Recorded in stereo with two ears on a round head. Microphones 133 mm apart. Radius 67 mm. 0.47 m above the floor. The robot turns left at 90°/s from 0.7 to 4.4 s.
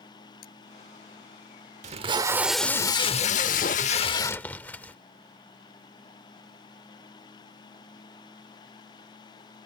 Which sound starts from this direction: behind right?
Tape being pulled, at 1.8 s.